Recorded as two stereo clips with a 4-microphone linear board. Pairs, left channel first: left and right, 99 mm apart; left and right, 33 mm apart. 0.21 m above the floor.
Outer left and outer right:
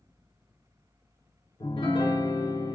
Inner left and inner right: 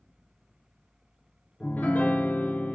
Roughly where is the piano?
Left.